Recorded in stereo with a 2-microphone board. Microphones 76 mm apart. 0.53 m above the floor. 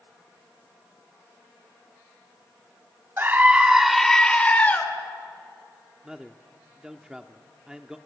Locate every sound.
3.2 s a scream: 30° right (ahead or behind), 1.5 m; by 4.8 s 20° left (ahead or behind), 2.5 m
6.0 s a man speaking: 10° right (ahead or behind), 0.8 m